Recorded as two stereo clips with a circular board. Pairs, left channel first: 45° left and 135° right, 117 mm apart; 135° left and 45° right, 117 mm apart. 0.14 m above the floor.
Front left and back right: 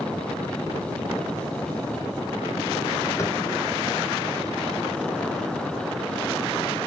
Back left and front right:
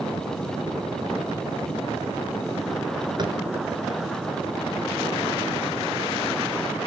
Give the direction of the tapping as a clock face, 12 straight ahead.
12 o'clock.